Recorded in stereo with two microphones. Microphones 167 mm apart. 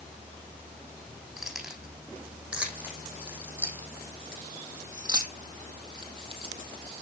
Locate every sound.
1.4 s keys jangling: centre (ahead or behind), 6 m; by 6.6 s 35° right (ahead or behind), 3.5 m